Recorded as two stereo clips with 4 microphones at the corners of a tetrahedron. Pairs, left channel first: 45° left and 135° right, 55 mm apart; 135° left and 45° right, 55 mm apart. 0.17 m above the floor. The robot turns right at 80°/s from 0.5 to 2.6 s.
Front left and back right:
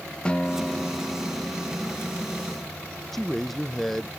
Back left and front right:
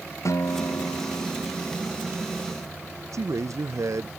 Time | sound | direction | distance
0.2 | a guitar | 115° left | ?
3.1 | a man speaking | 40° right | ?